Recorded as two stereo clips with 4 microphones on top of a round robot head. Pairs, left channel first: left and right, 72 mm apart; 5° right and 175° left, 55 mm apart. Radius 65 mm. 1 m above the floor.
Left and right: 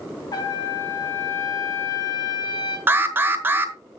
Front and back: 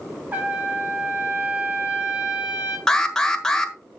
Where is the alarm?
75° right, 1.4 m.